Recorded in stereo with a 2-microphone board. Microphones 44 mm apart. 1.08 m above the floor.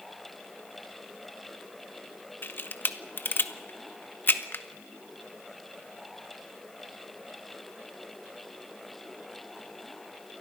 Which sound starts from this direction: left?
A camera shutter, at 2.4 s.